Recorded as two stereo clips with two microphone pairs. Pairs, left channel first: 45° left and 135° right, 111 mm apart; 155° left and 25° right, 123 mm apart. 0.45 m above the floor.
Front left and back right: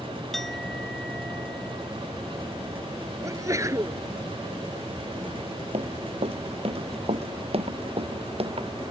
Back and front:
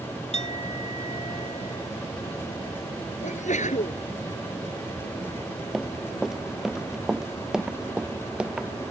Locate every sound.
0.3 s a clink: 130° left
3.2 s a sneeze: 160° left
5.7 s running footsteps: 115° right; by 8.7 s 105° right